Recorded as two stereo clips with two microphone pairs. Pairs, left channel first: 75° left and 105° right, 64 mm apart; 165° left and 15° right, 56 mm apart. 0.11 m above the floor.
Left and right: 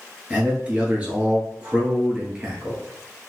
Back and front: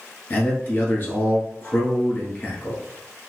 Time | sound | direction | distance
0.3 | a man speaking | 170° right | 1.4 m